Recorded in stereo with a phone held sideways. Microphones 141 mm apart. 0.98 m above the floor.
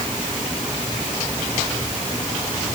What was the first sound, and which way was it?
Only background noise.